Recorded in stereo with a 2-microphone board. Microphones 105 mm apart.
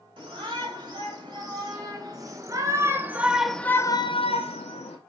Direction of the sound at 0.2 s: 45° right (ahead or behind).